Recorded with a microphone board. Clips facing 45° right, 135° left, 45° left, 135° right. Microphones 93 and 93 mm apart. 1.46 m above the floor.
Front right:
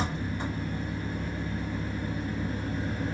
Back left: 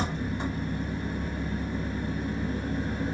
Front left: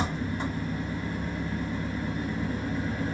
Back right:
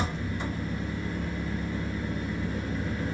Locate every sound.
0.0 s an engine running: 75° left, 1.3 m